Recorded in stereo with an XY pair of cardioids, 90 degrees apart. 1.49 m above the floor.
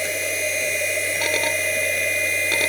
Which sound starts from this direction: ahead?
A machine running, at 0.0 s.